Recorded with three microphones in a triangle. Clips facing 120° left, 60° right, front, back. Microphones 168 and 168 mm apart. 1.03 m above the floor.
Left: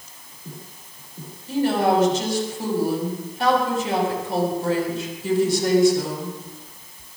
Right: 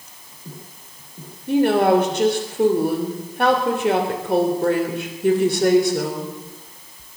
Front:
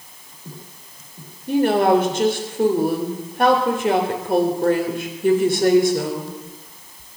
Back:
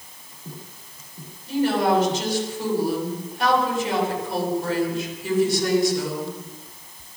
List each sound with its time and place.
1.5 s a woman speaking: 35° right, 3.5 m